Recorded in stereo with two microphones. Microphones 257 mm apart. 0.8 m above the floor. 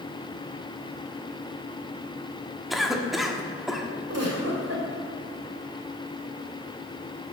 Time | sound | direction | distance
2.7 | a cough | centre (ahead or behind) | 1.2 m
4.1 | a giggle | 70° right (ahead or behind) | 2 m